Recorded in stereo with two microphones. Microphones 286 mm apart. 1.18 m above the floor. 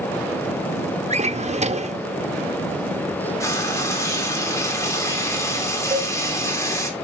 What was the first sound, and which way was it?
A drawer, 20° right (ahead or behind).